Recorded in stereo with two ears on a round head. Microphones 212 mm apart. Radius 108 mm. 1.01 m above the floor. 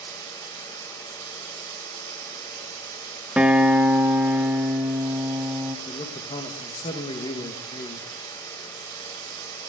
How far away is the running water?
About 1.5 m.